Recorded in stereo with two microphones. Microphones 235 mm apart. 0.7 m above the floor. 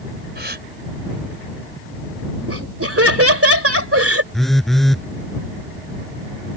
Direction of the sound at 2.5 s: 75° right (ahead or behind).